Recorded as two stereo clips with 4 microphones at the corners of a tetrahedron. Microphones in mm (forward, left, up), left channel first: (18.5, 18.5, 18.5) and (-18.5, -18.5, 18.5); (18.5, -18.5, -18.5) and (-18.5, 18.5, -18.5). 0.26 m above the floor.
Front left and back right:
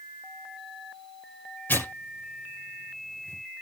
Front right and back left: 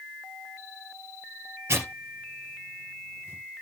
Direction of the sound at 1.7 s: 95° left.